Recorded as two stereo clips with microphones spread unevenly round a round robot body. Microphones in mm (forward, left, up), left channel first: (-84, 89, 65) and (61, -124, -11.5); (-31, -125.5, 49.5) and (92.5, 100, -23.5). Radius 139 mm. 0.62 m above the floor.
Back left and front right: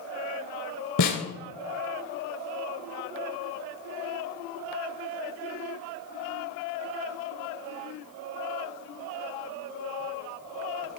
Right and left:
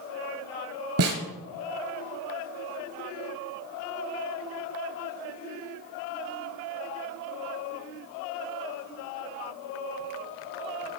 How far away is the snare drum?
About 2.5 m.